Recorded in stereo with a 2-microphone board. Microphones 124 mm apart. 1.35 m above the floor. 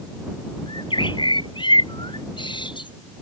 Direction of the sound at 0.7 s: 40° left (ahead or behind).